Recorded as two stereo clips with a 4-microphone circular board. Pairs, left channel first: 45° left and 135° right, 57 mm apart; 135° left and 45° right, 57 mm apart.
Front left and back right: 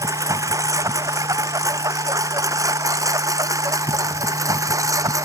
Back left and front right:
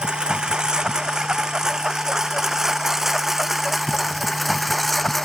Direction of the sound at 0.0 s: 120° right.